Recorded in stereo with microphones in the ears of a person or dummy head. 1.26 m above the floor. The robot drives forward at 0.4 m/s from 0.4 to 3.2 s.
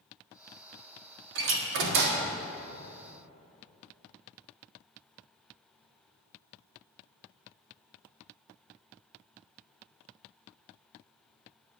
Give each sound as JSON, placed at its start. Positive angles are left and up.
{"t": 1.4, "sound": "a door slam", "side_deg": -70, "distance_m": 1.4}